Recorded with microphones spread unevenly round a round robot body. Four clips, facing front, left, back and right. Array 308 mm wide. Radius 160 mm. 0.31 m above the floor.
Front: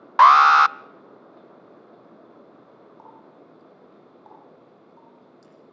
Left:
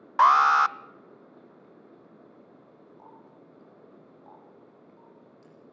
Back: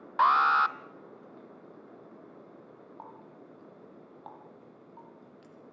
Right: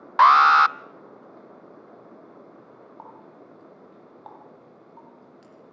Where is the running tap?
100° right, 7.5 m.